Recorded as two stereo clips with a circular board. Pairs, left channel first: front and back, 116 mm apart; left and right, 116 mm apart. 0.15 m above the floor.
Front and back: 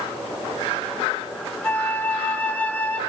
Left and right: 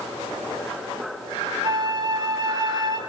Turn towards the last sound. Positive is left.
turn(degrees=-70)